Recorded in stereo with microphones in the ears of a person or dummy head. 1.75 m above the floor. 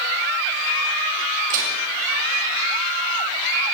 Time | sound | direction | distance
1.5 | dishes clattering | 50° right (ahead or behind) | 6.5 m